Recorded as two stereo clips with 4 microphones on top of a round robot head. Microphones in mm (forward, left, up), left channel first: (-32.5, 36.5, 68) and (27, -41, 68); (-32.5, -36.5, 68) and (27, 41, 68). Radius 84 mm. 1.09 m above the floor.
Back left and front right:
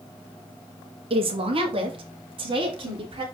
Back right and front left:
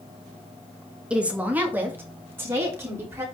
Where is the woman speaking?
30° right, 1.6 m; by 3.2 s 15° right, 4 m.